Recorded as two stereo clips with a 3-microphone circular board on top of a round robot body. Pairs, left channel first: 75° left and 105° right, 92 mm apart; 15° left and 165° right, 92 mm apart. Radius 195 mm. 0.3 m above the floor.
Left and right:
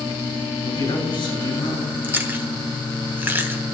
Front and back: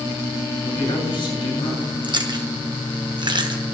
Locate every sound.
0.6 s a man speaking: 45° left, 6.5 m
2.0 s chewing: 165° right, 1.4 m